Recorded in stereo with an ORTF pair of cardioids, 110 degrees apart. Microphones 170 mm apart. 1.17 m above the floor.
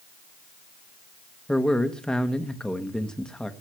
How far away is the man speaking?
About 1.3 m.